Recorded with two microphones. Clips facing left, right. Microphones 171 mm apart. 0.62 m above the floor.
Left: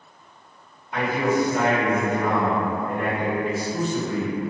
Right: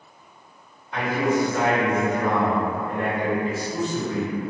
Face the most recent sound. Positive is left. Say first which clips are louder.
# even
turn(degrees=10)  # may be behind; listen again after turning